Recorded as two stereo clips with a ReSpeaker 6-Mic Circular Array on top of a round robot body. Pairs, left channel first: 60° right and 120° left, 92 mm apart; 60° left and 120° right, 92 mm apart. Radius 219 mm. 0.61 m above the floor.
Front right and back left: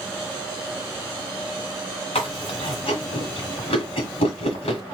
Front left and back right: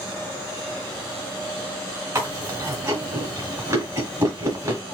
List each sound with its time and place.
2.1 s chewing: 65° right, 2 m